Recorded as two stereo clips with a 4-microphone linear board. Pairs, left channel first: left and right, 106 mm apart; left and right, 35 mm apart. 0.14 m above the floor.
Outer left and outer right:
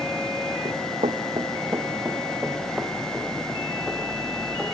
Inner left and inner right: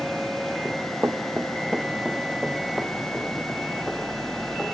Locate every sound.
0.7 s running footsteps: 75° right (ahead or behind), 1.3 m; by 4.7 s 5° left (ahead or behind), 6 m